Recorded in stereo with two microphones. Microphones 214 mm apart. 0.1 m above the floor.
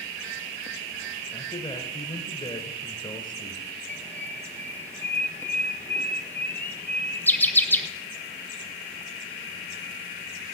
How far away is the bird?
About 1.0 m.